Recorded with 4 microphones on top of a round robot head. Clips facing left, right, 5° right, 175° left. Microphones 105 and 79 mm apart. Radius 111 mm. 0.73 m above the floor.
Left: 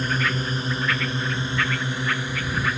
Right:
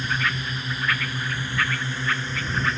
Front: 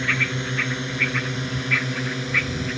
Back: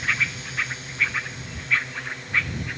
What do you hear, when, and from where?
0.0 s a drone: 30° left; by 2.8 s 5° left